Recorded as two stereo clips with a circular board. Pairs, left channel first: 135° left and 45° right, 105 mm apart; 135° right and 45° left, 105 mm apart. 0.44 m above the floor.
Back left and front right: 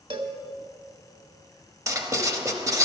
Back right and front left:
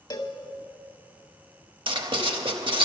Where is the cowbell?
80° right, 0.9 m.